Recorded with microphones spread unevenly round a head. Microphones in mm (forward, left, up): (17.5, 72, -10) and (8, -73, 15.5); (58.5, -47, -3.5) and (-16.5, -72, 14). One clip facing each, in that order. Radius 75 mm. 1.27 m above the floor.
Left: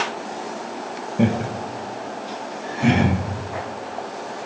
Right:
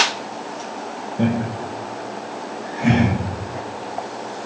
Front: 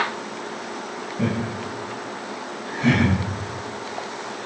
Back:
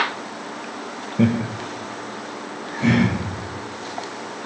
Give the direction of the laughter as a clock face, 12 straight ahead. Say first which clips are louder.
Even, back 6 dB; 7 o'clock.